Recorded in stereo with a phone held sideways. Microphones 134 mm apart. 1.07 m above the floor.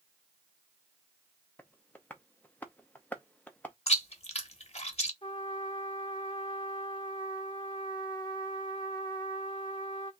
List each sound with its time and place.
1.6 s tapping: 10° left (ahead or behind), 0.8 m
3.9 s chewing: 50° left (ahead or behind), 0.9 m
5.2 s a trumpet: 35° left (ahead or behind), 1.0 m